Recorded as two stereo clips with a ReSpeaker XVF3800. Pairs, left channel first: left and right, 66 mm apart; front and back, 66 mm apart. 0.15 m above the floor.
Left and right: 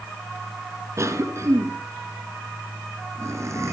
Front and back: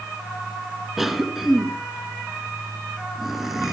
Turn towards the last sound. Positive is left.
turn(degrees=-95)